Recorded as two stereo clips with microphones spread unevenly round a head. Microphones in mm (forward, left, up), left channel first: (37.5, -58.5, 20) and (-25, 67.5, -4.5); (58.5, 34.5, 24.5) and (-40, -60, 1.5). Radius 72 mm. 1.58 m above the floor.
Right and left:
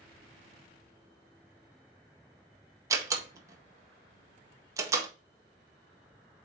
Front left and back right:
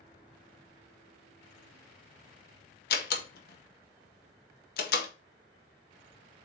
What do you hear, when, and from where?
2.9 s a door slam: 45° left, 1.6 m